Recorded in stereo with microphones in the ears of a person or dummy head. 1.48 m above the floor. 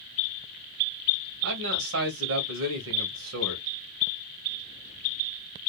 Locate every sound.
1.4 s a man speaking: 70° right (ahead or behind), 1.1 m